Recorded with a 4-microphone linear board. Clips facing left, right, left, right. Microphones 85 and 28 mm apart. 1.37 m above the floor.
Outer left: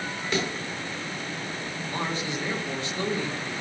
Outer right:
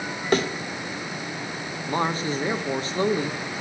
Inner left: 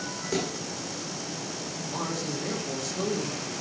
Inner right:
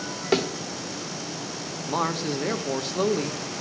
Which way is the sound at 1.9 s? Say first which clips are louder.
Outer right 7 dB, inner right 7 dB; 40° right (ahead or behind).